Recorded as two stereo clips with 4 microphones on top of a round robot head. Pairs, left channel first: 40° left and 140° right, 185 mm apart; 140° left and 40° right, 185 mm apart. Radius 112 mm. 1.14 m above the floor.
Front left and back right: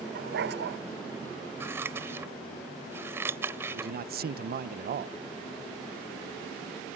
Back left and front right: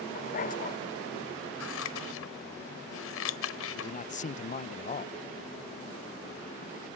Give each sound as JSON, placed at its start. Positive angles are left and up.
{"t": 0.1, "sound": "a dog barking", "azimuth_deg": -175}
{"t": 1.6, "sound": "scissors", "azimuth_deg": 145}
{"t": 3.7, "sound": "a man speaking", "azimuth_deg": -175}